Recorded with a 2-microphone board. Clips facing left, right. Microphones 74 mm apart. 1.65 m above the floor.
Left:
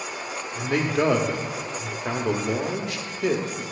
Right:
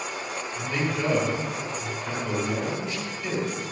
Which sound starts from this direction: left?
A man speaking, at 0.6 s.